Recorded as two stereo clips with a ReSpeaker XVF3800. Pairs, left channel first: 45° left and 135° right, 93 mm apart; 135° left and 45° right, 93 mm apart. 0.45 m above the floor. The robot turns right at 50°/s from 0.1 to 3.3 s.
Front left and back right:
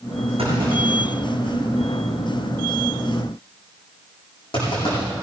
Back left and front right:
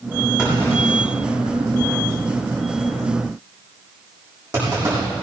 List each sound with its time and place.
0.4 s a clunk: 125° right, 7 m; by 5.0 s 20° left, 7 m